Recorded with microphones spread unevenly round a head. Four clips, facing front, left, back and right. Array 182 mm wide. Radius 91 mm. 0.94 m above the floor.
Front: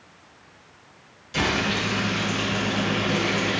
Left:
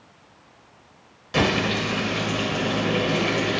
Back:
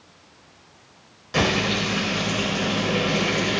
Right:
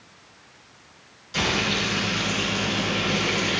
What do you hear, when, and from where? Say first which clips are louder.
1.3 s frying: left 4 dB, back 2 dB; 130° left, 3 m